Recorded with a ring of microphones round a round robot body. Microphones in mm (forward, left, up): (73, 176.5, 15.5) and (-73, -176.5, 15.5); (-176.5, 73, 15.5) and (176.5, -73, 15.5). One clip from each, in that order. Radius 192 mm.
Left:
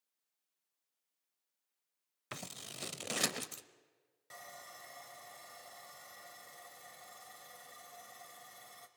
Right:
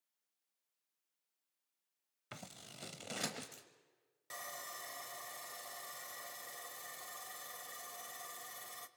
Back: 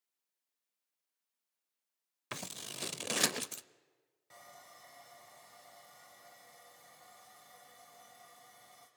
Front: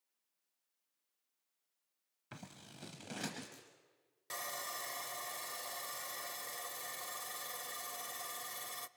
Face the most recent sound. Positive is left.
turn(degrees=-45)